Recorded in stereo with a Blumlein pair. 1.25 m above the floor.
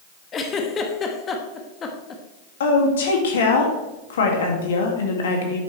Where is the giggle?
25° left, 1.3 m.